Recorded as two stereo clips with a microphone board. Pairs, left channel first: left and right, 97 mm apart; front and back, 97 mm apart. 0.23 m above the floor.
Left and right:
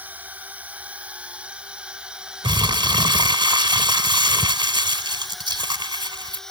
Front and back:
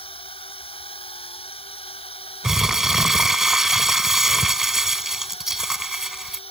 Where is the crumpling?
95° right.